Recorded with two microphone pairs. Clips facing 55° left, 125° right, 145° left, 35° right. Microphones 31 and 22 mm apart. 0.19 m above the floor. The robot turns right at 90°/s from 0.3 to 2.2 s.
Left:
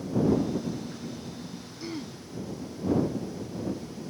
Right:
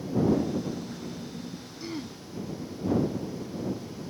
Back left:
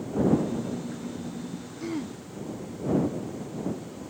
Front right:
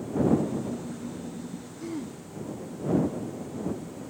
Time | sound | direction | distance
1.8 | throat clearing | 140° left | ?